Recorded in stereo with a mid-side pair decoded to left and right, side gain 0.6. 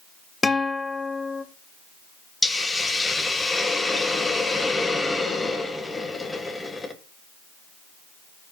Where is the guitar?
20° left, 0.8 m.